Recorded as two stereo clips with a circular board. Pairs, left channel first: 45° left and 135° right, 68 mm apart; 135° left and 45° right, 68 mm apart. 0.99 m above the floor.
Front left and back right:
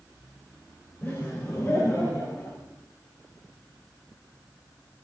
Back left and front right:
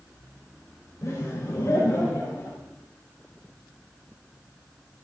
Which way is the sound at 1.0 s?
100° left.